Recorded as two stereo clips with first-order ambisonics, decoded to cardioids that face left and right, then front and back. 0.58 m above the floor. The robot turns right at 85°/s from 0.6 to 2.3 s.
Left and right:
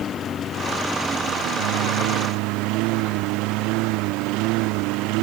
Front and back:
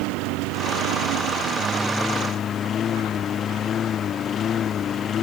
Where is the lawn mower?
155° left; by 5.2 s 65° right.